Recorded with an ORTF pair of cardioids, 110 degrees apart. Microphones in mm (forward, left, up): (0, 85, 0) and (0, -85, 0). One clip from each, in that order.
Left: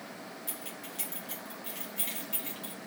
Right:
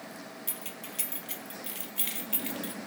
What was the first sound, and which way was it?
Keys jangling, 30° right.